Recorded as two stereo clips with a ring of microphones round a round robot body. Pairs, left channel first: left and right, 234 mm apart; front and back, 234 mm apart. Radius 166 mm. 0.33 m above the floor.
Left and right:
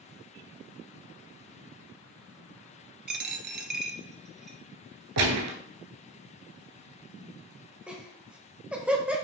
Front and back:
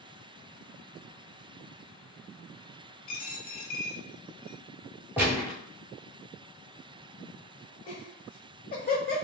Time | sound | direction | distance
3.1 | a dropped coin | 45° right | 0.6 m
5.2 | a gunshot | 95° right | 0.8 m
7.9 | laughter | 10° right | 1.1 m